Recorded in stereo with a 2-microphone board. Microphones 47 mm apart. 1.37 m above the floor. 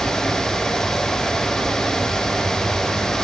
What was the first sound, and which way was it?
Only background noise.